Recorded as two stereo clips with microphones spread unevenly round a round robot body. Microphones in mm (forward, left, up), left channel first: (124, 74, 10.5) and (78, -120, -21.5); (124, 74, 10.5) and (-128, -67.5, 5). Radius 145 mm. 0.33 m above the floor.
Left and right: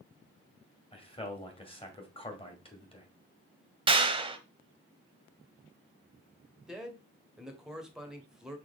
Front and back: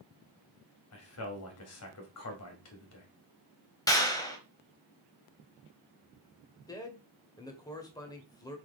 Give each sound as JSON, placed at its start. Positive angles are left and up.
{"t": 0.9, "sound": "a man speaking", "azimuth_deg": 10, "distance_m": 2.0}
{"t": 3.9, "sound": "a clap", "azimuth_deg": -50, "distance_m": 1.2}
{"t": 6.7, "sound": "a man speaking", "azimuth_deg": -40, "distance_m": 1.3}